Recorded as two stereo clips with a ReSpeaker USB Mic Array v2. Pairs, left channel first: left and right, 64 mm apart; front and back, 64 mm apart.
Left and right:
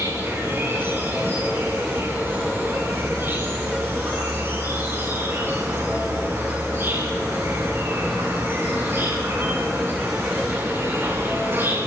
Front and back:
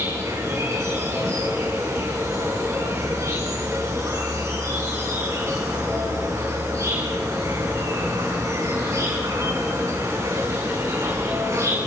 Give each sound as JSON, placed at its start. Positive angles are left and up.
{"t": 0.0, "sound": "an insect", "azimuth_deg": -140, "distance_m": 8.0}